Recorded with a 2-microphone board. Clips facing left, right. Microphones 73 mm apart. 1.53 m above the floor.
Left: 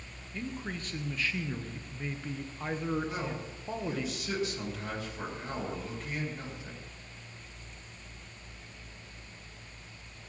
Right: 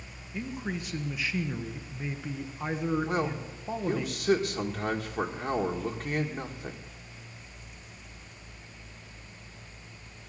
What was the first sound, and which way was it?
A man speaking, 10° right (ahead or behind).